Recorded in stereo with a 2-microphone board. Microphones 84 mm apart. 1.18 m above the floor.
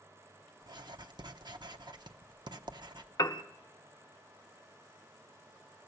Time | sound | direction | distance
0.6 | writing | 60° right (ahead or behind) | 0.7 m
3.2 | a piano | 45° left (ahead or behind) | 0.7 m